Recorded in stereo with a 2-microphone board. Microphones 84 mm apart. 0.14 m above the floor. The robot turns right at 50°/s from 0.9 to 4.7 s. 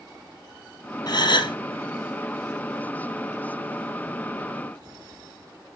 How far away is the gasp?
About 2.5 m.